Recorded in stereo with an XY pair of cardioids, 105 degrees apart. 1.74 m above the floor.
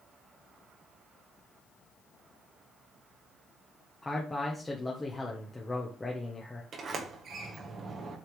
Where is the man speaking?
15° left, 1.4 m.